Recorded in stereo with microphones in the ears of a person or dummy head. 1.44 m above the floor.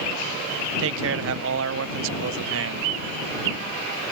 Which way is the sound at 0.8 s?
75° right (ahead or behind).